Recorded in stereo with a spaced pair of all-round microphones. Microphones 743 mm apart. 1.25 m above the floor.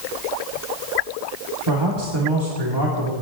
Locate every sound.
1.7 s a man speaking: 35° right (ahead or behind), 2.5 m